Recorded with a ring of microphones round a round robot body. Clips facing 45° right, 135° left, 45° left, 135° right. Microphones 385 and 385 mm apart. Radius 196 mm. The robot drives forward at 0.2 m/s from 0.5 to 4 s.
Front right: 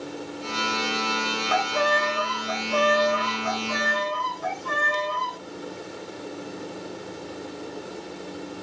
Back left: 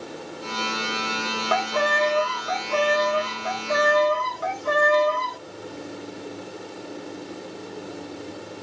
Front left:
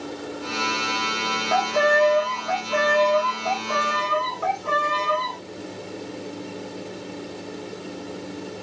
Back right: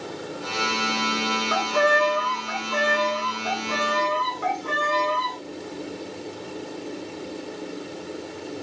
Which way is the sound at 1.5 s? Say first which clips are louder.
Back left 1 dB, front left 3 dB; 145° left.